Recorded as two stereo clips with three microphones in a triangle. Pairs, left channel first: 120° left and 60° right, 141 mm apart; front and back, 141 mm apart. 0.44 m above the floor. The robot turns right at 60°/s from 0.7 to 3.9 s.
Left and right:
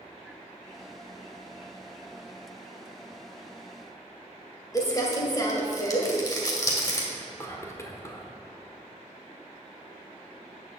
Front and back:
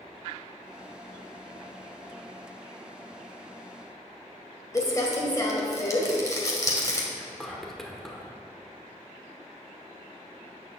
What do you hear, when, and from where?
4.7 s crumpling: 60° left, 1.6 m
7.1 s whispering: 85° left, 1.3 m